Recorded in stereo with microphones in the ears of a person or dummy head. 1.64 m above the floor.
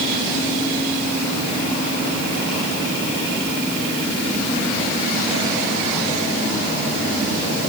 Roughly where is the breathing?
No breathing in this recording.